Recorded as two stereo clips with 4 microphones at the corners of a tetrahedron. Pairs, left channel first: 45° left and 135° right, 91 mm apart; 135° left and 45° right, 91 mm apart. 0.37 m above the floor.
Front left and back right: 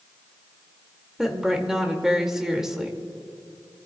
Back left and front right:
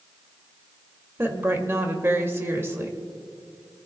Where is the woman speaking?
60° right, 1.5 m.